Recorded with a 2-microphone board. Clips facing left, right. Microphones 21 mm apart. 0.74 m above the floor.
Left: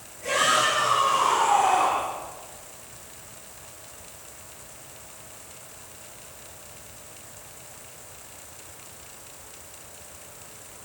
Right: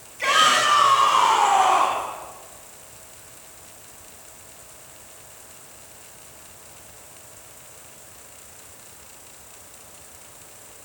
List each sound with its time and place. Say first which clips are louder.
0.2 s a shout: right 4 dB; 85° right, 7 m; by 2.0 s 75° right (ahead or behind), 6.5 m